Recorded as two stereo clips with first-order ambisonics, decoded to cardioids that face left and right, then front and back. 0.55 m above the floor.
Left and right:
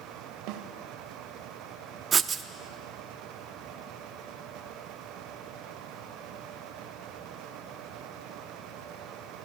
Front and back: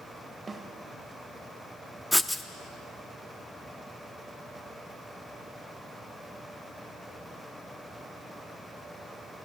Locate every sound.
0.5 s a snare drum: 105° right, 1.4 m
2.1 s writing: 85° right, 0.7 m